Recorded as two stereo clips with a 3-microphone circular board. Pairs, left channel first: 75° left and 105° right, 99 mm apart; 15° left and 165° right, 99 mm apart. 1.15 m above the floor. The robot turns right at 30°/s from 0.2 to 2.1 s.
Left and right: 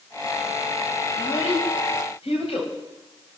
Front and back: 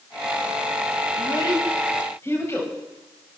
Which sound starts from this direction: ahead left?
A child speaking, at 1.1 s.